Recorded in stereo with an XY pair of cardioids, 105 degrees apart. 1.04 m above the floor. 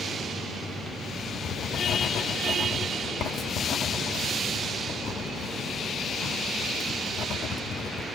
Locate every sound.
1.4 s writing: 65° left, 1.1 m